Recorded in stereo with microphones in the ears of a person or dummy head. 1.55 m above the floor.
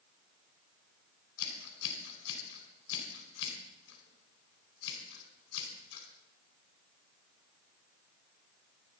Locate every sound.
1.4 s scissors: 70° left (ahead or behind), 4.5 m